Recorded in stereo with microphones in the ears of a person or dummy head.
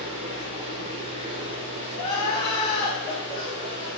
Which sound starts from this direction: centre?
Crying, at 2.0 s.